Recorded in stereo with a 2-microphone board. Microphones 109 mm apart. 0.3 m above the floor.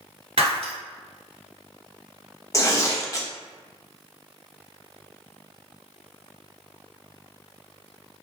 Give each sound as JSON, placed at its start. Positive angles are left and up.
{"t": 0.4, "sound": "breaking glass", "side_deg": -75, "distance_m": 1.0}
{"t": 2.5, "sound": "tearing paper", "side_deg": 30, "distance_m": 0.6}